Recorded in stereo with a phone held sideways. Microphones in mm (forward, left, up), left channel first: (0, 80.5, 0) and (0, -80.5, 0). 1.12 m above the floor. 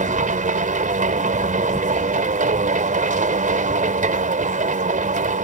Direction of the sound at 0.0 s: 55° right (ahead or behind).